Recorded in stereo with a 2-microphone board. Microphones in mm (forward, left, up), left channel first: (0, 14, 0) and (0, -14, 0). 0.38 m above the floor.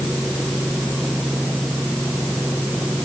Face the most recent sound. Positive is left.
No sound to turn to.